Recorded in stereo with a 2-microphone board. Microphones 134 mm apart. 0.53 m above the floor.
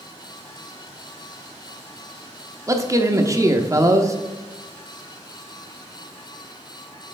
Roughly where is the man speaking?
Right.